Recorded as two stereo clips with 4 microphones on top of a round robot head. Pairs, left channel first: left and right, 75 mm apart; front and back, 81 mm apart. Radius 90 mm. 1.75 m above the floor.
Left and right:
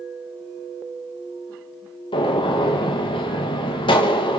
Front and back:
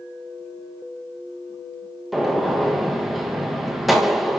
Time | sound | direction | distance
2.1 | a gunshot | 90° left | 3 m